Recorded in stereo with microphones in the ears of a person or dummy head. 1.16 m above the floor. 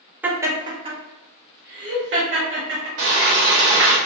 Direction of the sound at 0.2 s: 10° right (ahead or behind).